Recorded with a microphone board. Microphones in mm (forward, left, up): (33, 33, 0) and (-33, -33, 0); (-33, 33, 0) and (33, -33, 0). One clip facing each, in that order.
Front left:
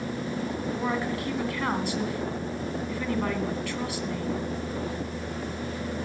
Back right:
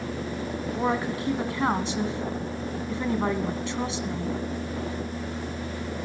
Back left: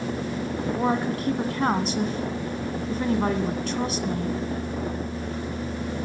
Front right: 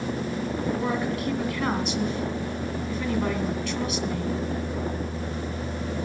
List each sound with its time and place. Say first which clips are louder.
0.8 s a woman speaking: back right 4 dB, back left 2 dB; 170° left, 1.6 m